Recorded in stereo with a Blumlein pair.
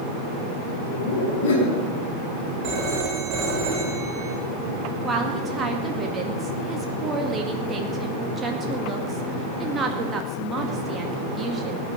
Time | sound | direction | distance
0.9 | laughter | 50° left | 5.5 m
2.6 | a phone ringing | 35° right | 4 m
5.0 | a woman speaking | 20° right | 2 m